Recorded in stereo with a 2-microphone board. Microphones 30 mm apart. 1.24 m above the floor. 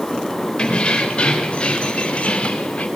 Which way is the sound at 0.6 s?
35° left (ahead or behind).